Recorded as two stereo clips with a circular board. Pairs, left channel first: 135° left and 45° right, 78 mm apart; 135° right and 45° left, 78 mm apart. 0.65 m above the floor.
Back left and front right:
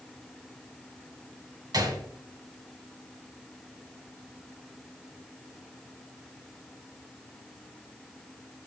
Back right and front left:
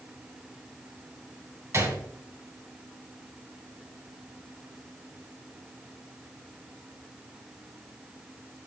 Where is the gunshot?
10° right, 2 m.